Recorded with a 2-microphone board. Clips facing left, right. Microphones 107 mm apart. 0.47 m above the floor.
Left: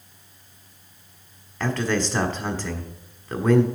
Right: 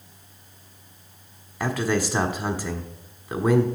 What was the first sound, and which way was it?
A man speaking, 10° right (ahead or behind).